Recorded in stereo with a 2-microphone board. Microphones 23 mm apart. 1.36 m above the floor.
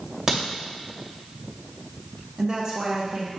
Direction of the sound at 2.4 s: 35° right (ahead or behind).